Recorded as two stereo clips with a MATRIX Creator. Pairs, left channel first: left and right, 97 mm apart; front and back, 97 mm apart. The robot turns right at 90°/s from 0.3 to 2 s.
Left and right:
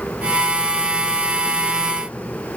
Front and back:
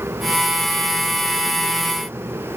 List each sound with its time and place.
Only background noise.